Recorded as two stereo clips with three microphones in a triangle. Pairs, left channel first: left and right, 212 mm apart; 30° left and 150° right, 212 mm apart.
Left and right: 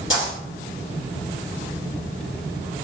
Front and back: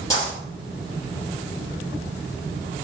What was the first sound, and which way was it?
A dropped coin, 105° left.